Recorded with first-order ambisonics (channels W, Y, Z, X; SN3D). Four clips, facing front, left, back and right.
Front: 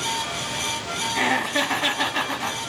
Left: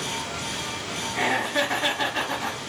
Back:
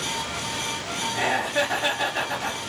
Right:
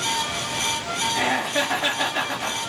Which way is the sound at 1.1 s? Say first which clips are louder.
Left 1 dB, front 2 dB; 5° right.